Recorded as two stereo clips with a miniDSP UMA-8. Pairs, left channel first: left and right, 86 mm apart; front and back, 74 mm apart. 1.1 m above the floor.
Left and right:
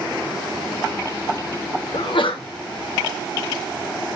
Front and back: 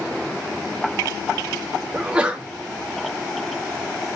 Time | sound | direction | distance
1.9 | a sneeze | 105° left | 2 m